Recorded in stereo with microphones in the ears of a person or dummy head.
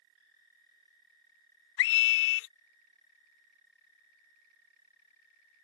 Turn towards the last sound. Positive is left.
turn(degrees=75)  # may be behind; listen again after turning